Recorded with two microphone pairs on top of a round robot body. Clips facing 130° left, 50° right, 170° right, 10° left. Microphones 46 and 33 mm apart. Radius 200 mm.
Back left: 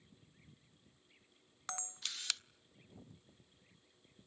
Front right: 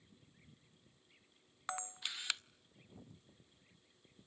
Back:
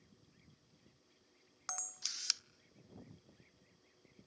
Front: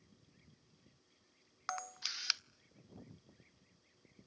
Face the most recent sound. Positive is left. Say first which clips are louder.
# front right 3 dB, front 5 dB
turn(degrees=15)